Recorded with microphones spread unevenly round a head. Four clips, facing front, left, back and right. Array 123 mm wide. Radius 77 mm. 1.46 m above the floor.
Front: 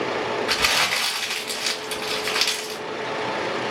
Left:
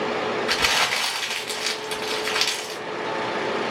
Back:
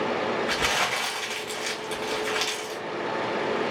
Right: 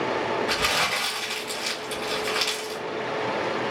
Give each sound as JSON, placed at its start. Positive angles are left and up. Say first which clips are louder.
{"t": 0.5, "sound": "crumpling", "louder": "left 1 dB, front 2 dB", "azimuth_deg": 50, "distance_m": 1.7}